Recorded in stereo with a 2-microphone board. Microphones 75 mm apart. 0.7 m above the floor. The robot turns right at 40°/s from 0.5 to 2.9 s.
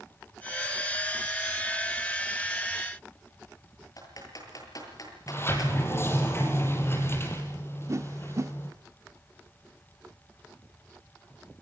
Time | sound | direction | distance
4.0 | typing on a keyboard | 55° left (ahead or behind) | 7.5 m
5.3 | a sliding door | 35° left (ahead or behind) | 4.5 m
7.9 | a whoosh | 45° right (ahead or behind) | 1.4 m